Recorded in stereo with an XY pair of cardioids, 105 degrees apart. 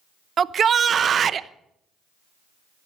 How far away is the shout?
About 0.7 m.